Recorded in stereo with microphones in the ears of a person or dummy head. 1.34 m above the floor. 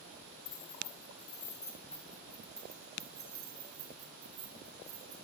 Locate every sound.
0.5 s keys jangling: 40° left (ahead or behind), 3.5 m; by 5.1 s 35° right (ahead or behind), 6 m